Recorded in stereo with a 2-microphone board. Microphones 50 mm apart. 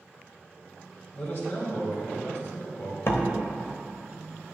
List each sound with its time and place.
1.1 s a man speaking: 55° left (ahead or behind), 2.5 m
3.1 s a door slam: 60° left (ahead or behind), 1.0 m